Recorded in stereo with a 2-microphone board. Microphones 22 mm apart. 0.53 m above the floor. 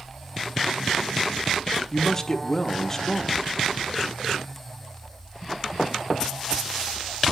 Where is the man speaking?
25° left (ahead or behind), 0.8 m.